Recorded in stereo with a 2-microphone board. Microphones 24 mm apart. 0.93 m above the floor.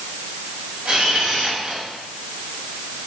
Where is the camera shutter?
45° right (ahead or behind), 7 m.